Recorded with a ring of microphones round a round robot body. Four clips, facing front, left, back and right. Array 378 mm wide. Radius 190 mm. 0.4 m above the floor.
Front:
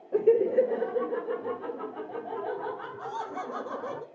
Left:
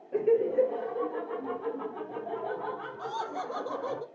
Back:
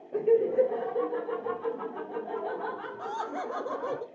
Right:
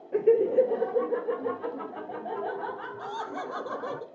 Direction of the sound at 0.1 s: 30° right.